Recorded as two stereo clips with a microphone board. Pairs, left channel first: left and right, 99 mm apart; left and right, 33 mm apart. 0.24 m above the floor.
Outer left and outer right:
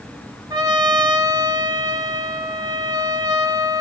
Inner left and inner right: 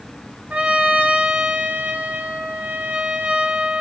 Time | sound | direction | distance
0.5 | a trumpet | 40° right (ahead or behind) | 1.4 m